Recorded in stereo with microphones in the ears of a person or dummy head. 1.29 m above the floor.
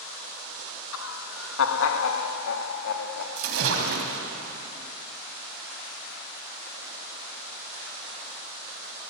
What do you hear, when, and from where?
0.9 s laughter: 80° left, 1.1 m; by 3.3 s 75° left (ahead or behind), 2.5 m
3.4 s a splash: 75° right (ahead or behind), 3.5 m